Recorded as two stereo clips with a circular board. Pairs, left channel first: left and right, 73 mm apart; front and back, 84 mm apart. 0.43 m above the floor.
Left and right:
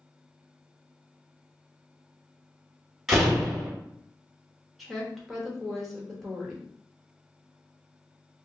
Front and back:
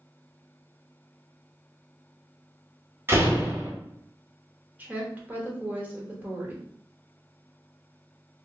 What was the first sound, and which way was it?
A door slam, 170° right.